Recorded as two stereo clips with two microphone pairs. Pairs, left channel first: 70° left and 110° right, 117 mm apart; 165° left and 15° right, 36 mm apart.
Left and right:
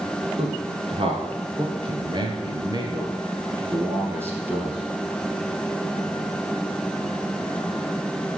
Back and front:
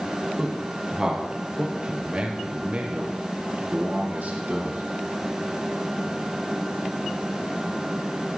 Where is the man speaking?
85° right, 3 m; by 4.8 s 35° right, 3 m.